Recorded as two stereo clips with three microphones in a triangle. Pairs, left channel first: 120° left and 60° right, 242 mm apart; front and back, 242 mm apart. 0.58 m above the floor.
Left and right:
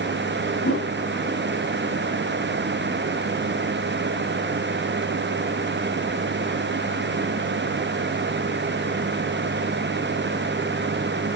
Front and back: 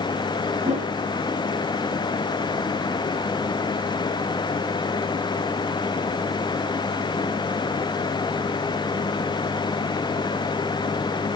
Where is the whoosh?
125° left, 1.4 m.